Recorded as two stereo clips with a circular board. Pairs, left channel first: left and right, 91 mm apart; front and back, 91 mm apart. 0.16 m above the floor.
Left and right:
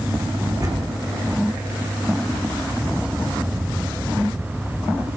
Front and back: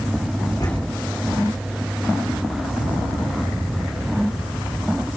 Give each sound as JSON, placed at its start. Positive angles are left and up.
{"t": 0.6, "sound": "a door slam", "azimuth_deg": -45, "distance_m": 7.0}